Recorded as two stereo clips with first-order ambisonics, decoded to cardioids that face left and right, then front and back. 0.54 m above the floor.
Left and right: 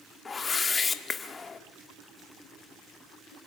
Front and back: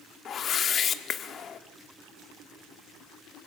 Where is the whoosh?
30° left, 1.3 m.